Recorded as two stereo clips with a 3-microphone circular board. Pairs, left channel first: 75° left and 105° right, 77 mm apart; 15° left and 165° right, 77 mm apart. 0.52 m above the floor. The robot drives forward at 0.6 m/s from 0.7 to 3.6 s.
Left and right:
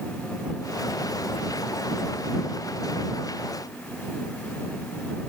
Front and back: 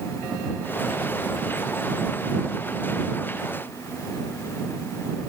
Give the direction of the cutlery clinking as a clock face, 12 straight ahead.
No cutlery clinking in this recording.